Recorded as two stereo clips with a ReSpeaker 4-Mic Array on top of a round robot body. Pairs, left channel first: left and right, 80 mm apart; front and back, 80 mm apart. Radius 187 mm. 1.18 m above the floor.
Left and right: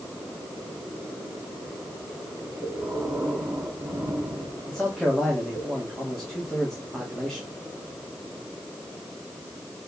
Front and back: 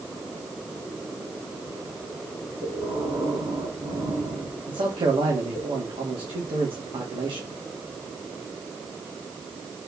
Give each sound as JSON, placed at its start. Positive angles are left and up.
{"t": 2.6, "sound": "breathing", "azimuth_deg": -155, "distance_m": 4.0}
{"t": 4.7, "sound": "a man speaking", "azimuth_deg": 175, "distance_m": 2.5}